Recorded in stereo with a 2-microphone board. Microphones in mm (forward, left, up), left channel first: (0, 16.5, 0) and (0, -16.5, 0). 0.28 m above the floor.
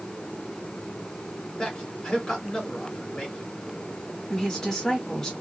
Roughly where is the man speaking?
Centre.